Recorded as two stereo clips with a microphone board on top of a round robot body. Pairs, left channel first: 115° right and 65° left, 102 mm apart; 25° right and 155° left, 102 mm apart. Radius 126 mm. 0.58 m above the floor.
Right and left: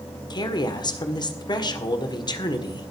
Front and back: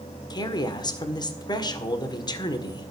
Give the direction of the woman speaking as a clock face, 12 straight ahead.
2 o'clock.